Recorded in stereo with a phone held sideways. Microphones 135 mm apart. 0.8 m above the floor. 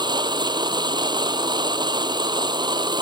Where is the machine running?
35° right (ahead or behind).